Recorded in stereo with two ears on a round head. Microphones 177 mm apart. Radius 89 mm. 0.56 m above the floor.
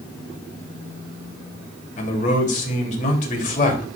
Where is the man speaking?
40° left (ahead or behind), 2.5 m.